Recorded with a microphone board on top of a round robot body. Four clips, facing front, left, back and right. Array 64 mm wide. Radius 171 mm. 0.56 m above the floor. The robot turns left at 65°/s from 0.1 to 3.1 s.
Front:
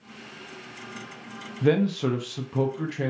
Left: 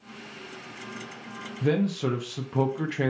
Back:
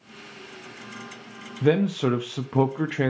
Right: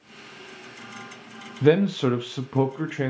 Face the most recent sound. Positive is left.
turn(degrees=170)